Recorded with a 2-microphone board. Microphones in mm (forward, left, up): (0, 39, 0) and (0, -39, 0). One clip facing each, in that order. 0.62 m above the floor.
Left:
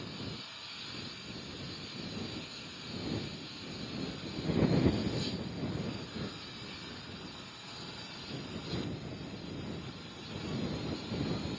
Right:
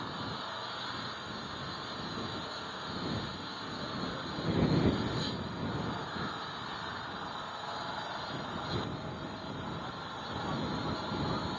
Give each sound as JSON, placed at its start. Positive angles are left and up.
{"t": 0.0, "sound": "an engine running", "side_deg": -50}